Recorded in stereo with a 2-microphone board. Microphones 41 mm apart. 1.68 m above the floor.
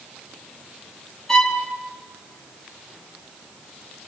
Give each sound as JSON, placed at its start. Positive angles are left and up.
{"t": 1.3, "sound": "a violin", "side_deg": 10, "distance_m": 3.5}